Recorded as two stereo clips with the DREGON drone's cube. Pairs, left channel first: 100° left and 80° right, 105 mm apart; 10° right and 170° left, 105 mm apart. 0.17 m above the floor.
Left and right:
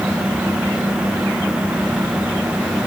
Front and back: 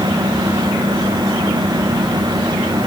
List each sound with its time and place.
Only background noise.